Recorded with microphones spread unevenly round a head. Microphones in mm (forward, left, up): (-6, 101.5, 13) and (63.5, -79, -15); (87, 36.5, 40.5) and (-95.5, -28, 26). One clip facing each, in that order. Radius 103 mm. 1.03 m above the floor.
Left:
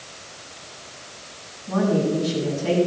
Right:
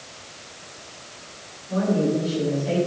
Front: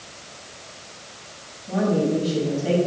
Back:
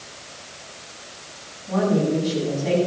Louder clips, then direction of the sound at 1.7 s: Left 1 dB, back 1 dB; 105° left.